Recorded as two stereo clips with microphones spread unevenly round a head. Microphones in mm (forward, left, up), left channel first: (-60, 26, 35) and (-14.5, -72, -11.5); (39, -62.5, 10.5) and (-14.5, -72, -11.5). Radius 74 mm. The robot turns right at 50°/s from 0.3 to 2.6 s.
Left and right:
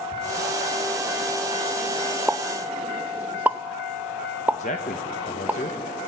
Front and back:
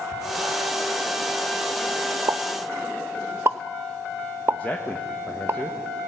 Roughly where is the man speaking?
Left.